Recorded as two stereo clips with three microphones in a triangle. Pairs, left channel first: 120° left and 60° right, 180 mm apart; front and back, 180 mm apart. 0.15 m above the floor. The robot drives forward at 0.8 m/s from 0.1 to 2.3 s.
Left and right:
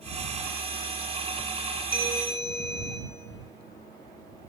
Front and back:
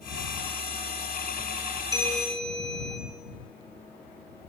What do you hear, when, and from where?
1.9 s a bell: 115° left, 2 m; by 3.0 s 125° left, 2 m